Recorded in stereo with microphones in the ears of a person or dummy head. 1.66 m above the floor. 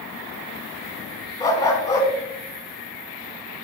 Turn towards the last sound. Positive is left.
turn(degrees=20)  # may be behind; listen again after turning